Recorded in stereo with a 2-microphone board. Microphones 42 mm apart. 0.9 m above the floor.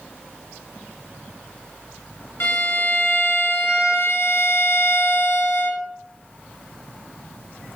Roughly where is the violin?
Left.